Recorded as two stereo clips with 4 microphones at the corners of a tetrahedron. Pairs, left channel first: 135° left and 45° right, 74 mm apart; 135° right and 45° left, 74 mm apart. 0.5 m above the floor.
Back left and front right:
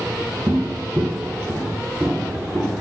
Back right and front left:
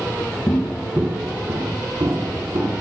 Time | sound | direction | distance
0.5 | footsteps | 105° right | 0.7 m